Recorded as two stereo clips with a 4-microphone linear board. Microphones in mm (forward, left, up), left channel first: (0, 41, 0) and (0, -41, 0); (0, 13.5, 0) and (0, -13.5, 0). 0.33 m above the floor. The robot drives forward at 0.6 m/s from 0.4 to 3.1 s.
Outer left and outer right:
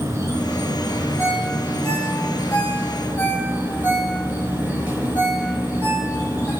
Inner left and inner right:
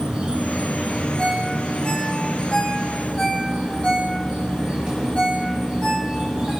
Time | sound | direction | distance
0.0 | an insect | 35° right (ahead or behind) | 4 m
1.2 | a ringtone | 30° left (ahead or behind) | 4 m